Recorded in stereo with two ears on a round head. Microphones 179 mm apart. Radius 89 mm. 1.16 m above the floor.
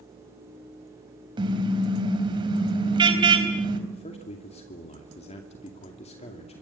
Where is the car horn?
25° right (ahead or behind), 4 m.